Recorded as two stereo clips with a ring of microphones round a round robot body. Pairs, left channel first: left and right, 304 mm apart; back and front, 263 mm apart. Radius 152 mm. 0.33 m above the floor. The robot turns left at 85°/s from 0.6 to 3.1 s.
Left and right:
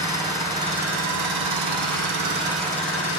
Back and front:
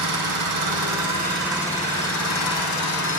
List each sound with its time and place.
0.0 s an engine running: 10° right, 5.5 m; by 3.2 s 135° left, 5.5 m